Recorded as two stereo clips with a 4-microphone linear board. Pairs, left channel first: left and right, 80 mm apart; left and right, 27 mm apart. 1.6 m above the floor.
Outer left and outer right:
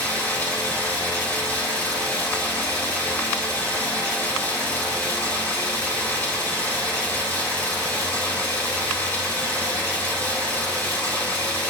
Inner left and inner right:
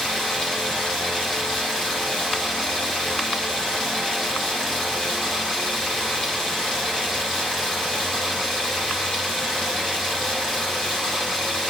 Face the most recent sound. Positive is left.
turn(degrees=25)  # may be behind; listen again after turning